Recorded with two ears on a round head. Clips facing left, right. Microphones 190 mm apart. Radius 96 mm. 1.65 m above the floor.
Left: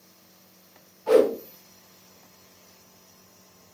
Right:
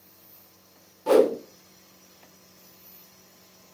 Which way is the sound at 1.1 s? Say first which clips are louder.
Even; 65° right (ahead or behind).